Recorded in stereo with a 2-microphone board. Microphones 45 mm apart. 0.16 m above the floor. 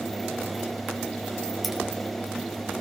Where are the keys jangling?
Centre (ahead or behind), 1.6 m.